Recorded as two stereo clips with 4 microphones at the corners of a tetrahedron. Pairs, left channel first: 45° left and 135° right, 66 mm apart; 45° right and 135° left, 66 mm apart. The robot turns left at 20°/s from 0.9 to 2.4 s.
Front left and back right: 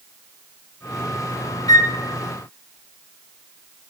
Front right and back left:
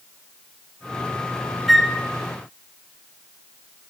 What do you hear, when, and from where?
1.7 s a flute: 45° left, 1.0 m; by 1.9 s 40° left, 1.0 m